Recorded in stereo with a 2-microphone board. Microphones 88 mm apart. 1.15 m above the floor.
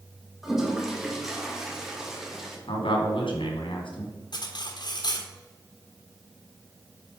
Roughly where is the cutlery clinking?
Left.